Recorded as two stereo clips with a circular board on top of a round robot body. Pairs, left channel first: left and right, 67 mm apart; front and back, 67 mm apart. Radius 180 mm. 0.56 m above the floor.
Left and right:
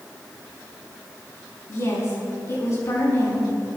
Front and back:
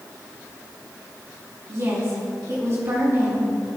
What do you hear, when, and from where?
1.7 s a woman speaking: 135° left, 6 m